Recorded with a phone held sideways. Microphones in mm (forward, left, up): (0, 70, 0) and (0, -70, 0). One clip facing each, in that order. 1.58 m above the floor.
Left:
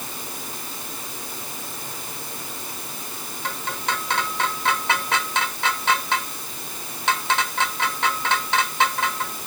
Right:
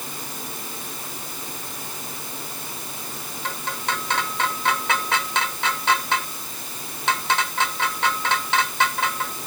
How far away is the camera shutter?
I don't hear a camera shutter.